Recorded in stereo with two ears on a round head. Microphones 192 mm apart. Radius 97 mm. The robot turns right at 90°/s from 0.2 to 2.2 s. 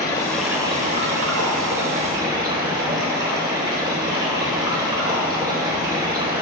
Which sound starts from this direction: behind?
Running water, at 0.0 s.